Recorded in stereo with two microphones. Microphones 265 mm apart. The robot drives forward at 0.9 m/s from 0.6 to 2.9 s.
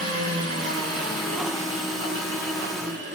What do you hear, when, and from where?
0.0 s an engine running: 70° right (ahead or behind), 3.5 m; by 3.1 s 50° right (ahead or behind), 4.5 m